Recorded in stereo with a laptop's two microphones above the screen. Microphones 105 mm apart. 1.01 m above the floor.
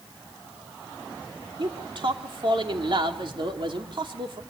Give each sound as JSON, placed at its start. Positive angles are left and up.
{"t": 1.6, "sound": "a man speaking", "side_deg": -55, "distance_m": 3.0}